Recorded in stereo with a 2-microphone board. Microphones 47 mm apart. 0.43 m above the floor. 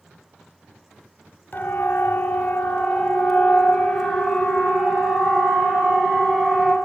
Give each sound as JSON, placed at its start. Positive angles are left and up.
{"t": 1.5, "sound": "a siren", "side_deg": 40, "distance_m": 2.5}